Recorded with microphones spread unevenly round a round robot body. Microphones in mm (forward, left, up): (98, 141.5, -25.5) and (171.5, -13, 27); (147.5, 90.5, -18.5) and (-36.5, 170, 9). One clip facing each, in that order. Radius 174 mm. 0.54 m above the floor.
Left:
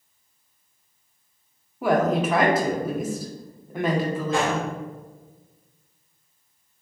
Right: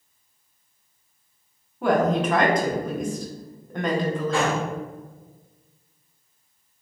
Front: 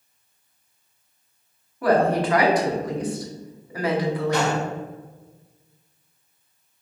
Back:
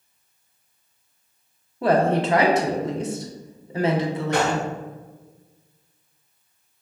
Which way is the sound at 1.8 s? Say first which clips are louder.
Even, even; 115° left.